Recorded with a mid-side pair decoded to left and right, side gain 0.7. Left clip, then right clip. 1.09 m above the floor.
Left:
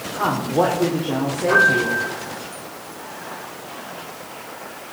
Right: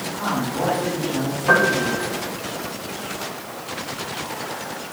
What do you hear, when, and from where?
0.1 s a woman speaking: 50° left, 3.5 m
1.5 s a piano: 50° right, 6 m